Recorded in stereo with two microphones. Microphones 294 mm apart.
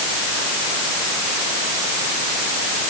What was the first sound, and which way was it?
Only background noise.